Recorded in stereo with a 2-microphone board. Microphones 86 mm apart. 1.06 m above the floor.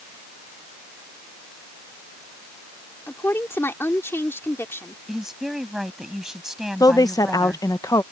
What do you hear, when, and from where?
3.1 s a woman speaking: 30° left (ahead or behind)
5.1 s a woman speaking: 5° right (ahead or behind)
6.8 s a woman speaking: 50° left (ahead or behind)